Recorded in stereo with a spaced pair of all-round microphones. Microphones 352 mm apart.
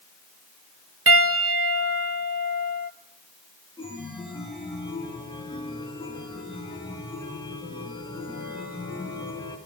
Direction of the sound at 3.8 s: 15° left (ahead or behind).